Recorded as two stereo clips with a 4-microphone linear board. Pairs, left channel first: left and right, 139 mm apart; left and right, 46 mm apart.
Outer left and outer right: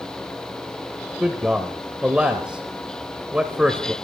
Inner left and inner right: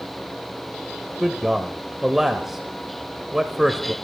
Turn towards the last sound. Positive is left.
turn(degrees=-5)  # may be behind; listen again after turning